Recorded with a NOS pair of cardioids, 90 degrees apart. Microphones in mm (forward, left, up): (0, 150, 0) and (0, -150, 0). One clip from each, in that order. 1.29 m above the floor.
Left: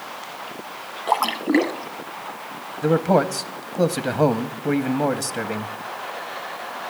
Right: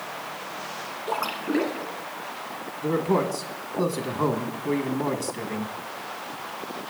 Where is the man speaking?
55° left, 0.9 m.